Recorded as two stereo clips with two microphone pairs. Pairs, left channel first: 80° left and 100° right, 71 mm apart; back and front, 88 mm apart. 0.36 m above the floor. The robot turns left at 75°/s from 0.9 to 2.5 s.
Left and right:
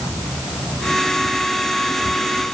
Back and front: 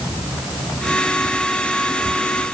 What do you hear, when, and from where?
Only background noise.